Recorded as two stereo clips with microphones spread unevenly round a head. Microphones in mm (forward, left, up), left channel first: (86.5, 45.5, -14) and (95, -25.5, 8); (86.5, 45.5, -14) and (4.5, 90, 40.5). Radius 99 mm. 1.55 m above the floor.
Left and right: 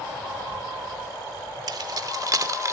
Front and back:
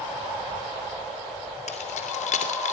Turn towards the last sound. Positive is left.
turn(degrees=-50)